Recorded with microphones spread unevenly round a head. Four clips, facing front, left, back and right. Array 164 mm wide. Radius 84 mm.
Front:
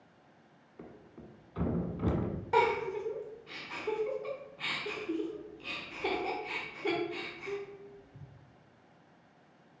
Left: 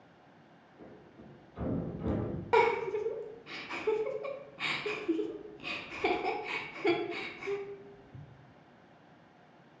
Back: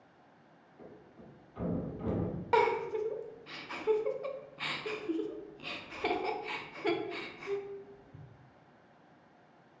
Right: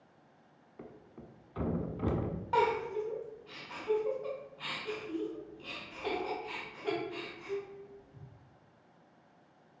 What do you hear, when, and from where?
0.8 s a thud: 50° right, 1.1 m
2.5 s a giggle: 110° left, 0.8 m